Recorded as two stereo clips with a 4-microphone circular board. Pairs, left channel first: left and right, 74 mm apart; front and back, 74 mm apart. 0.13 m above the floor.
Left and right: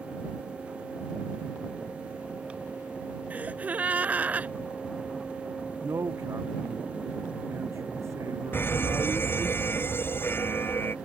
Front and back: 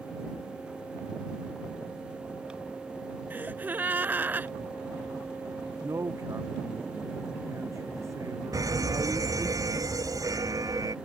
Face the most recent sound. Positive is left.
turn(degrees=150)